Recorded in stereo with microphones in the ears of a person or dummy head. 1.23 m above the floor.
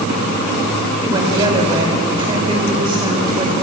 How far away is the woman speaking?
About 4 m.